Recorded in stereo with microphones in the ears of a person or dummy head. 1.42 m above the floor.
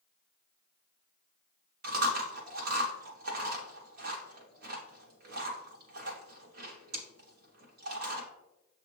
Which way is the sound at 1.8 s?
55° right (ahead or behind).